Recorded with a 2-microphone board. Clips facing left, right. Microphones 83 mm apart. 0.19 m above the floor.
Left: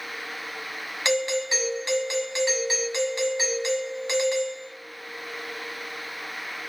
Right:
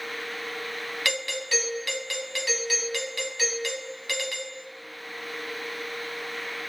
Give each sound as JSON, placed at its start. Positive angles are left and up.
{"t": 1.1, "sound": "a doorbell", "side_deg": 25, "distance_m": 1.5}